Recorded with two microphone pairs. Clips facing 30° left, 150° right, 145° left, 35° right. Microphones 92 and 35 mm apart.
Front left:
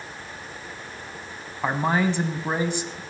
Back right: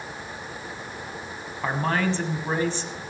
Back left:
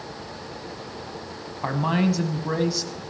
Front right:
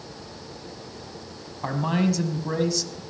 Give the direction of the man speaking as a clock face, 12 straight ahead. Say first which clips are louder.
Front left 2 dB, back left 1 dB; 9 o'clock.